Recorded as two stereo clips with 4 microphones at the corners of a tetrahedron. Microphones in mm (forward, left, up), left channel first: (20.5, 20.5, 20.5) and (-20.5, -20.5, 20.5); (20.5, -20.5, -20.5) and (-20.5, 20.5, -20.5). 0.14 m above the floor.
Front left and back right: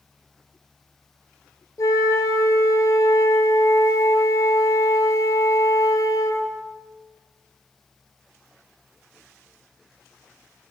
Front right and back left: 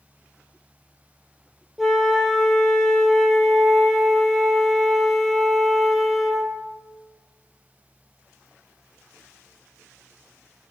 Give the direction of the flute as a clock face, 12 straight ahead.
10 o'clock.